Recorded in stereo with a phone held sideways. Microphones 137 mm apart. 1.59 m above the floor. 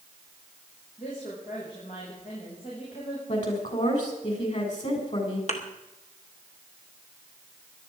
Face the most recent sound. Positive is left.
turn(degrees=55)  # may be behind; listen again after turning